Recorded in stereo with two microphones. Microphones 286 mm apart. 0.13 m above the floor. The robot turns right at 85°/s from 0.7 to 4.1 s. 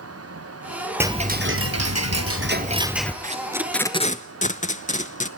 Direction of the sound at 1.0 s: 170° right.